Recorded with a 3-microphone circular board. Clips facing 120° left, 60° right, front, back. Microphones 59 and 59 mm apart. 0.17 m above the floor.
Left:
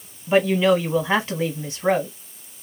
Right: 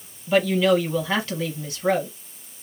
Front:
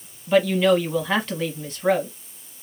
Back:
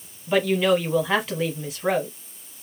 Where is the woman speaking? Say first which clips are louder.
Left 1 dB, front 2 dB; 100° left, 1.1 m.